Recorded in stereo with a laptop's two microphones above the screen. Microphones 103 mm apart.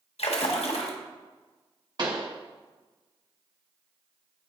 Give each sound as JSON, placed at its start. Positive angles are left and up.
{"t": 0.2, "sound": "a splash", "side_deg": 75, "distance_m": 0.9}
{"t": 2.0, "sound": "a pop", "side_deg": -45, "distance_m": 0.8}